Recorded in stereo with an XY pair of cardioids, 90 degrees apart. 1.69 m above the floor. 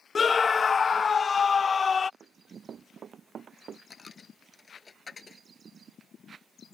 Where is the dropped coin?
35° left.